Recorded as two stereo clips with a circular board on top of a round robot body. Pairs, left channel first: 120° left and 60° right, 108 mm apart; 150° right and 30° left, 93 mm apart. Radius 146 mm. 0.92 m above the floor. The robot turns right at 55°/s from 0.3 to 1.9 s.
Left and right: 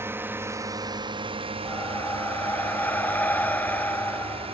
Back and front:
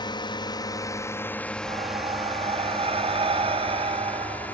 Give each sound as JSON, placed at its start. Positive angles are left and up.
{"t": 0.0, "sound": "a drone", "azimuth_deg": -125}
{"t": 1.6, "sound": "breathing", "azimuth_deg": 30}